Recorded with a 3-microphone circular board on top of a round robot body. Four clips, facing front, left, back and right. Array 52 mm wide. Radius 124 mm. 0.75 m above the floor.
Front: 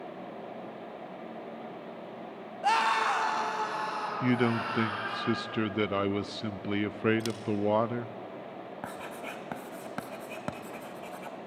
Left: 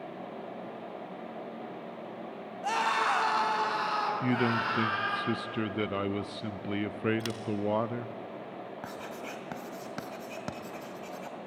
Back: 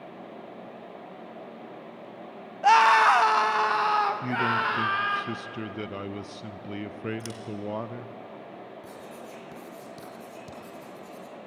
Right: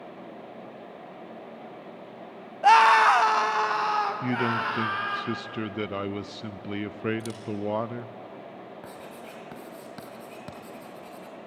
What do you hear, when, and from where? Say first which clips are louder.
2.6 s a scream: right 12 dB, back 8 dB; 120° right, 1.3 m; by 5.2 s 165° right, 3.5 m
4.2 s a man speaking: right 2 dB, back 2 dB; straight ahead, 0.6 m
7.2 s scissors: even, front 4 dB; 80° left, 0.9 m
8.8 s writing: left 2 dB, front 3 dB; 20° left, 1.7 m